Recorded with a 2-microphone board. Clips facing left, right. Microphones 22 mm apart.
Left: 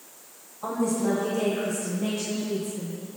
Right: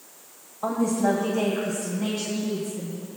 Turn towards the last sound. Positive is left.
turn(degrees=-80)